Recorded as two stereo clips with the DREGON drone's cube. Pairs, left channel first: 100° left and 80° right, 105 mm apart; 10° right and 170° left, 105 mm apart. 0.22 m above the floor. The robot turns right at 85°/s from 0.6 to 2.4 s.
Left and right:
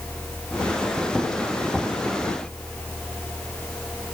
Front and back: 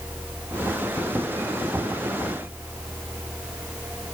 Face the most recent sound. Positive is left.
No sound to turn to.